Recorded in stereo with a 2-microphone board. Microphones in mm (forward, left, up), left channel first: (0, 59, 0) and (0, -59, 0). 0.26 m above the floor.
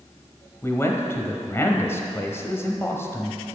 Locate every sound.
0.6 s a man speaking: 20° left (ahead or behind), 1.1 m